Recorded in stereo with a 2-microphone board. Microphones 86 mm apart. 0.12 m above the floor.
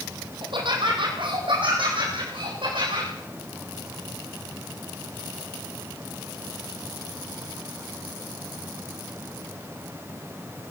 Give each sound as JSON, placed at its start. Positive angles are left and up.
{"t": 0.4, "sound": "laughter", "side_deg": -70, "distance_m": 3.5}